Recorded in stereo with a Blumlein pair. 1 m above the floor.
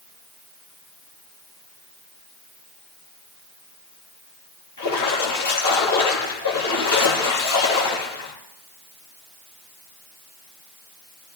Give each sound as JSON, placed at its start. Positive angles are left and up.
{"t": 4.8, "sound": "a splash", "azimuth_deg": 70, "distance_m": 7.5}